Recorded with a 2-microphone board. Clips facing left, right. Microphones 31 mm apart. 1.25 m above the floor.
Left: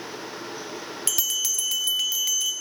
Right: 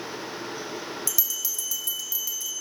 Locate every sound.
1.1 s a bell: 55° left (ahead or behind), 0.6 m